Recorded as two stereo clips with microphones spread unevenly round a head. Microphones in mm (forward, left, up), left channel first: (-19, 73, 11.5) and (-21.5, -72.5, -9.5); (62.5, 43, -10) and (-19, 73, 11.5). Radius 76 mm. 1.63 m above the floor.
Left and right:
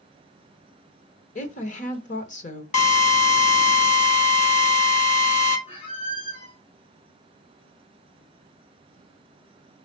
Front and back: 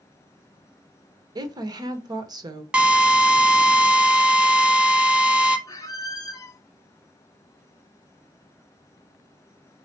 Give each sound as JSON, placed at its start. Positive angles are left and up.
{"t": 1.4, "sound": "a woman speaking", "azimuth_deg": 125, "distance_m": 1.7}
{"t": 2.7, "sound": "a drill", "azimuth_deg": 95, "distance_m": 1.5}
{"t": 5.7, "sound": "a squeak", "azimuth_deg": 35, "distance_m": 1.9}